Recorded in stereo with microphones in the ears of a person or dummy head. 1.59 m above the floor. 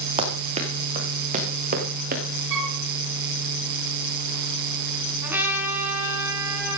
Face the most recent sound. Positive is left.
turn(degrees=-10)  # may be behind; listen again after turning